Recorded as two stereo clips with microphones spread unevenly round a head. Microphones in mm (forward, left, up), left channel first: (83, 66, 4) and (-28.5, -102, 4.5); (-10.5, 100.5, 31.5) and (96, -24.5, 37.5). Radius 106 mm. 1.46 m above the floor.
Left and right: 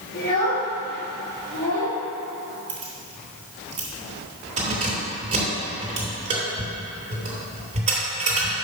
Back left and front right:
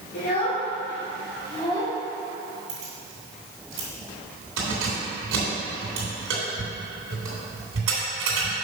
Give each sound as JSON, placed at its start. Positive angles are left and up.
{"t": 0.1, "sound": "a child speaking", "azimuth_deg": 105, "distance_m": 2.5}
{"t": 2.7, "sound": "keys jangling", "azimuth_deg": -65, "distance_m": 3.0}